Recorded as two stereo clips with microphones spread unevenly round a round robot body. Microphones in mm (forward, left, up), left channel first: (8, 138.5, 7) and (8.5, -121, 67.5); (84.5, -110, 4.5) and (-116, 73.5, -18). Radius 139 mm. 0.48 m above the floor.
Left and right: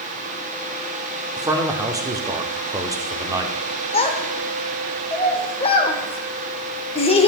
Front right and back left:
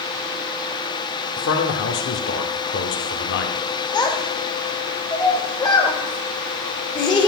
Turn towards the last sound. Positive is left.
turn(degrees=35)